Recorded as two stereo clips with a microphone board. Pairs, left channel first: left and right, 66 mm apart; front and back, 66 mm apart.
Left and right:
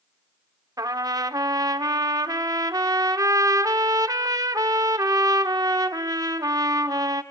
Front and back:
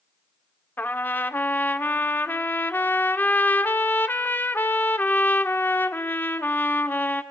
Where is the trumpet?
60° right, 0.8 m.